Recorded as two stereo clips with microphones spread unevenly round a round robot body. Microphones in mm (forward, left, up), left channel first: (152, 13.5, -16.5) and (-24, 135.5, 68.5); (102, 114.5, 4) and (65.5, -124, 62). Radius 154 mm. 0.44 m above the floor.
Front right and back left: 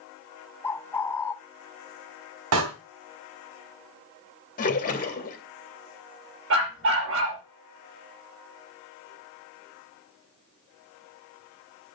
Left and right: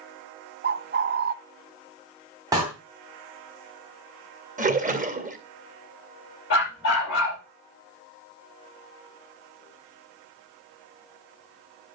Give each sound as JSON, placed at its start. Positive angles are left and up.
{"t": 0.6, "sound": "a bird", "azimuth_deg": -60, "distance_m": 0.6}
{"t": 2.5, "sound": "a door slam", "azimuth_deg": 180, "distance_m": 2.5}
{"t": 4.6, "sound": "a splash", "azimuth_deg": -35, "distance_m": 2.5}
{"t": 6.5, "sound": "a dog barking", "azimuth_deg": 130, "distance_m": 5.0}